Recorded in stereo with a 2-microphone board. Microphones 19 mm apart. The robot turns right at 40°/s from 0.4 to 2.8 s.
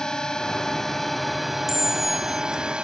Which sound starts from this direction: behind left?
A drone, at 0.0 s.